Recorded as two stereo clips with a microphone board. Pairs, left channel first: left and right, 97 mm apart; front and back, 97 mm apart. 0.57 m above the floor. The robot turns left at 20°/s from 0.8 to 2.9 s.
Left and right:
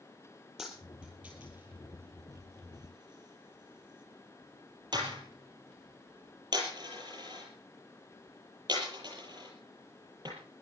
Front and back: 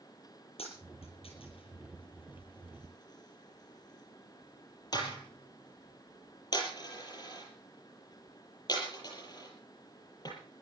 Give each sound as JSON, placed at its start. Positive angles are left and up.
{"t": 0.6, "sound": "a dropped coin", "azimuth_deg": 0, "distance_m": 7.0}